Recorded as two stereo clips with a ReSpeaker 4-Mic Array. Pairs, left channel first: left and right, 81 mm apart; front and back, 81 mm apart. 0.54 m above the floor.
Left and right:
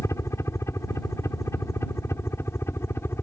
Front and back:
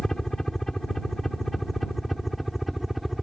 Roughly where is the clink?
No clink in this recording.